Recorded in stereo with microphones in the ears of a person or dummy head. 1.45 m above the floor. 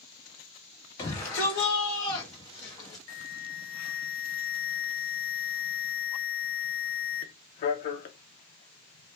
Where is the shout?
25° left (ahead or behind), 1.8 m; by 3.0 s 20° left (ahead or behind), 0.7 m.